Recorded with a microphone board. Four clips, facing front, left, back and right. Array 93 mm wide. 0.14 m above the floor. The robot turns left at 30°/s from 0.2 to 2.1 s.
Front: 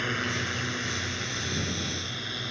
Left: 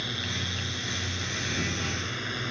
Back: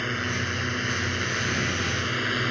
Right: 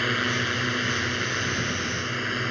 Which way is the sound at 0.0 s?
90° right.